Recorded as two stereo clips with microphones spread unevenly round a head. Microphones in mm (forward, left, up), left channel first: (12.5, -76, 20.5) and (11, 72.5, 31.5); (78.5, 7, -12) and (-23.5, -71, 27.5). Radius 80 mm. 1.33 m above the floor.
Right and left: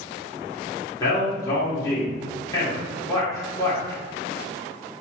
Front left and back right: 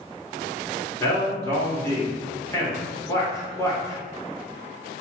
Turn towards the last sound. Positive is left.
turn(degrees=-25)